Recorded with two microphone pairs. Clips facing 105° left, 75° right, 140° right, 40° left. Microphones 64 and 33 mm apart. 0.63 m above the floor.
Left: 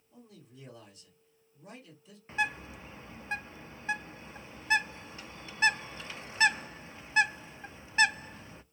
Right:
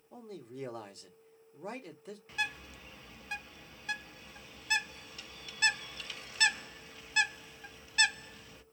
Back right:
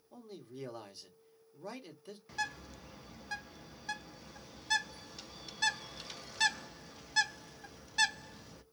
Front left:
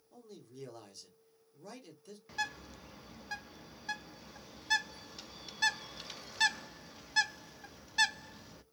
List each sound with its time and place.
0.1 s a man speaking: 75° right, 1.6 m
2.3 s a bird: 120° left, 0.6 m